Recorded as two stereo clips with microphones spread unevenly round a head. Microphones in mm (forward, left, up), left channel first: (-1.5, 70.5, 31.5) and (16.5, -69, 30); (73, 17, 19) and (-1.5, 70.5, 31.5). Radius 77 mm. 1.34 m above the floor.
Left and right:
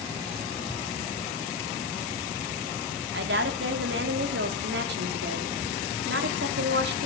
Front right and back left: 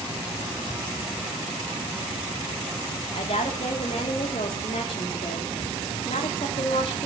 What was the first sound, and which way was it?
A woman speaking, 85° right.